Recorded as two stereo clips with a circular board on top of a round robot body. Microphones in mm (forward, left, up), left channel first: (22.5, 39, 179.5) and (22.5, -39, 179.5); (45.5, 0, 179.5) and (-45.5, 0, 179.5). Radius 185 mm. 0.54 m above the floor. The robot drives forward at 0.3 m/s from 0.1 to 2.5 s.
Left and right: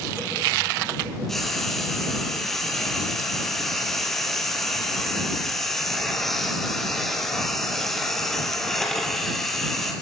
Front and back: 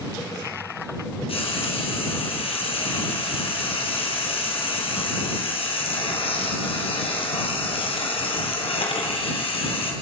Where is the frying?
5° left, 4.5 m.